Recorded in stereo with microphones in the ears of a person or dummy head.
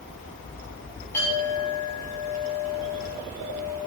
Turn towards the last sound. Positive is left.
turn(degrees=15)  # may be behind; listen again after turning